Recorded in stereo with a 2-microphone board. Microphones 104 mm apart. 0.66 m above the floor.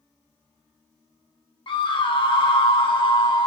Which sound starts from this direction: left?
A scream, at 1.7 s.